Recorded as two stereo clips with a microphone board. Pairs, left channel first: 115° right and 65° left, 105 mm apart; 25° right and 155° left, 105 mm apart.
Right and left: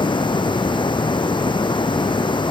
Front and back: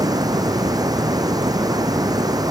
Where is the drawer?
I don't hear a drawer.